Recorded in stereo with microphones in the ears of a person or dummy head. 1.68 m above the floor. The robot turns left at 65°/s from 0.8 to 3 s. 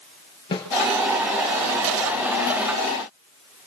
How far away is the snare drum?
About 5 m.